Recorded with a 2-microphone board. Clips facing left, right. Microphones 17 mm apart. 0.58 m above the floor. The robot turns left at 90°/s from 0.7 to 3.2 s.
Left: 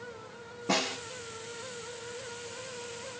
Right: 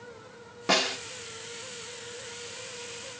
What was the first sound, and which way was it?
A snare drum, 70° right (ahead or behind).